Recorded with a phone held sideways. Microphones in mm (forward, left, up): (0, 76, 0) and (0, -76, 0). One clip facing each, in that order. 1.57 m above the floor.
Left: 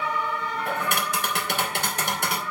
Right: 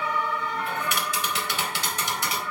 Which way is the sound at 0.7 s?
55° left (ahead or behind).